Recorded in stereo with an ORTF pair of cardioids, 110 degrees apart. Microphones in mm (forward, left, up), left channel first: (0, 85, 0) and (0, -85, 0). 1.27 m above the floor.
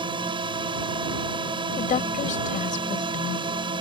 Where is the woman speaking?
50° left.